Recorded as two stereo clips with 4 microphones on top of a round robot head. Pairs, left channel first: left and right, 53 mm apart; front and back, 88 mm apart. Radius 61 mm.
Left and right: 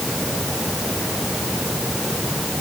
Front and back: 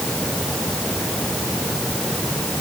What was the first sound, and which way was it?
Only background noise.